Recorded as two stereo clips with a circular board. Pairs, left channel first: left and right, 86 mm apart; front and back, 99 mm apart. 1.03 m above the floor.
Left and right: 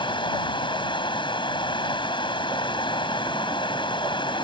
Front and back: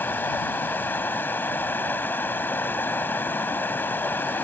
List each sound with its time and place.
0.0 s running water: 70° left